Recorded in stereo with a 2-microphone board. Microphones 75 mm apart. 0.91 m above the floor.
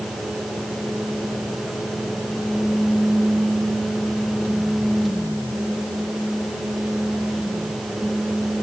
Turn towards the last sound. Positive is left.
No sound to turn to.